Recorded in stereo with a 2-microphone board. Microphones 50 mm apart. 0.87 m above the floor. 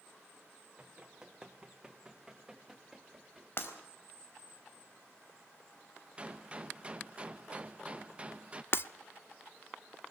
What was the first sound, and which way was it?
Running footsteps, 15° right (ahead or behind).